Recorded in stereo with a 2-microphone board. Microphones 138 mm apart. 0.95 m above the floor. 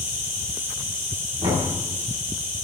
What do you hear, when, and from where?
0.0 s an insect: 45° right (ahead or behind), 2.5 m
1.4 s knocking: 45° right (ahead or behind), 1.7 m